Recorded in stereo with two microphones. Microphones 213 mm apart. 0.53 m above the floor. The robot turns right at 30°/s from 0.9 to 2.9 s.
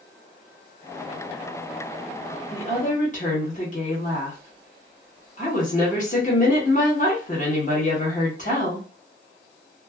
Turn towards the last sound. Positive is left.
turn(degrees=35)  # may be behind; listen again after turning